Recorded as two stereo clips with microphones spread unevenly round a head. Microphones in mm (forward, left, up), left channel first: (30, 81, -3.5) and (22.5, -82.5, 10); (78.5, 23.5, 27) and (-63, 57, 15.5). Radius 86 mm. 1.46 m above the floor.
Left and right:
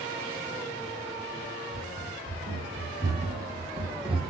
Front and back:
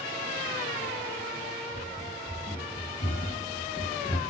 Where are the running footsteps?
90° right, 4 m; by 4.3 s 55° right, 1.7 m.